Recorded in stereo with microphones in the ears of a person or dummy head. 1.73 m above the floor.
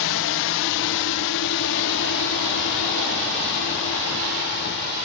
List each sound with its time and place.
0.0 s a drone: 70° left (ahead or behind); by 5.0 s 60° left (ahead or behind)